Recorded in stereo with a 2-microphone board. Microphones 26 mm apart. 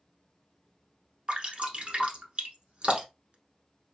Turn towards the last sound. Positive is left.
turn(degrees=-50)  # may be behind; listen again after turning